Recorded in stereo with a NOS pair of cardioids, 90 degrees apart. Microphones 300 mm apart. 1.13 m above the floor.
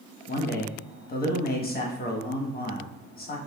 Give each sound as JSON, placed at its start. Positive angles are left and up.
{"t": 0.3, "sound": "a man speaking", "azimuth_deg": 30, "distance_m": 1.2}